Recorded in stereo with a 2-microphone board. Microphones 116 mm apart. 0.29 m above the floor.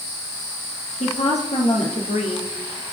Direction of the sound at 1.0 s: 75° left (ahead or behind).